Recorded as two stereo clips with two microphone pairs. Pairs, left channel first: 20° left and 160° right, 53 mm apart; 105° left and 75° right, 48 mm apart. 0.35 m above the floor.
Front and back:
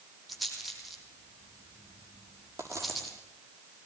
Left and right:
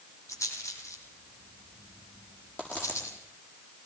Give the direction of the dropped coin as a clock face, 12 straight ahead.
7 o'clock.